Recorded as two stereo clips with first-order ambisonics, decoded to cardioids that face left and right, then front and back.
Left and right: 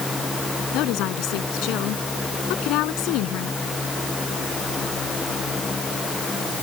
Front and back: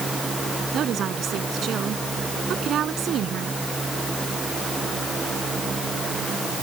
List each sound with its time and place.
0.7 s a woman speaking: 125° left